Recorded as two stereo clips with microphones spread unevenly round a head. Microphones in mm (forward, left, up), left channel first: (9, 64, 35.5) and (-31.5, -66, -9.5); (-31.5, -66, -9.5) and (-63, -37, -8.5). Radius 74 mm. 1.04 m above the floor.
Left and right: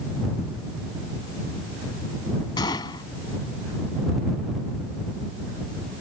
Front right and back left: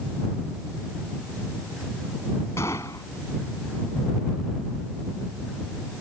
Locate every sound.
2.6 s a gunshot: 10° left